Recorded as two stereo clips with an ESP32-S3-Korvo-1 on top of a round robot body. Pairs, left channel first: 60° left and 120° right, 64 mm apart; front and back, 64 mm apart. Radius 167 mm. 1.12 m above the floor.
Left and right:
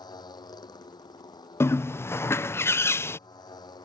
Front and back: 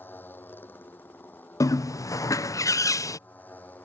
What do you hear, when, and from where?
0.0 s a motorcycle: 65° left
1.6 s a bird: 15° left